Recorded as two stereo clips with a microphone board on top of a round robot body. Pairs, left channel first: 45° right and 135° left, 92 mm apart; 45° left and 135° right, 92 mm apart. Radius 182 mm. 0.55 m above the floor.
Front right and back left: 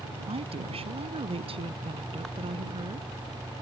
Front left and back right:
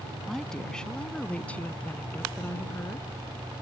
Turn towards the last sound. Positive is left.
turn(degrees=110)